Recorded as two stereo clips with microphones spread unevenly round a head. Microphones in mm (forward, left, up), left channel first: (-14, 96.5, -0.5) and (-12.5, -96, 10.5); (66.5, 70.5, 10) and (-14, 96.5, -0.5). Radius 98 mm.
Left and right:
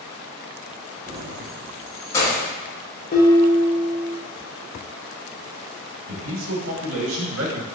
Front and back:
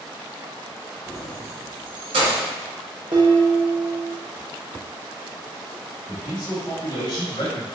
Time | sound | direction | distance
1.1 | keys jangling | 60° right | 0.5 m
3.1 | dishes clattering | 140° left | 1.1 m
6.1 | a man speaking | 75° right | 0.9 m